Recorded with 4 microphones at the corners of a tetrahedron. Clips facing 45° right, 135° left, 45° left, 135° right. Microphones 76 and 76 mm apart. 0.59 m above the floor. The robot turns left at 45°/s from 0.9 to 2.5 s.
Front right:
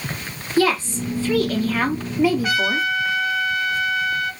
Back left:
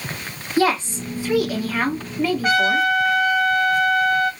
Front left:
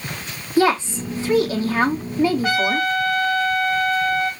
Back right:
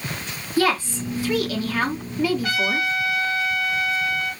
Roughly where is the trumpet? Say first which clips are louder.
Back left 3 dB, front left 4 dB; left.